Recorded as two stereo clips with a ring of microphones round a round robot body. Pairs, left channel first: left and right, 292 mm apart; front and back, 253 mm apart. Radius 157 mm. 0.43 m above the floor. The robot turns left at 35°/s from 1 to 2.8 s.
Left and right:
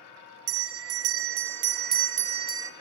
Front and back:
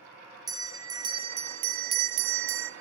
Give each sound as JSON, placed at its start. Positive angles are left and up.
{"t": 0.5, "sound": "a bell", "azimuth_deg": -110, "distance_m": 1.7}